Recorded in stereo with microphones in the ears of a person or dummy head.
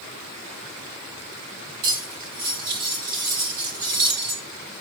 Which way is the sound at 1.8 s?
45° right (ahead or behind).